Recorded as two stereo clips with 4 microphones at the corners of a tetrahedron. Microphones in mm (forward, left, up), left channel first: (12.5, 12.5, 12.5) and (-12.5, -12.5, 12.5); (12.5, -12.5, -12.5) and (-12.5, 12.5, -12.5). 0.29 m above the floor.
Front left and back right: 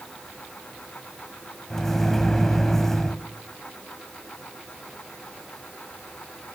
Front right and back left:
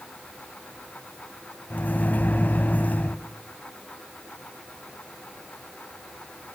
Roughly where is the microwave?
Ahead right.